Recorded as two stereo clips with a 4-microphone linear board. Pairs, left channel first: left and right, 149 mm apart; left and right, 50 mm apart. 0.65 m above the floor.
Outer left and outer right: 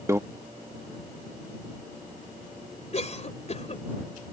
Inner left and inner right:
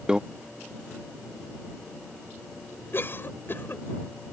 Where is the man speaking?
I don't hear a man speaking.